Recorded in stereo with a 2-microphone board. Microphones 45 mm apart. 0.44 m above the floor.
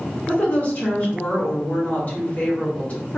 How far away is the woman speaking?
About 1.3 m.